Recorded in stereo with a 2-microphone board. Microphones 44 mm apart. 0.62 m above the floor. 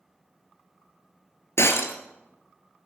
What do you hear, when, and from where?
1.6 s breaking glass: 75° left (ahead or behind), 1.6 m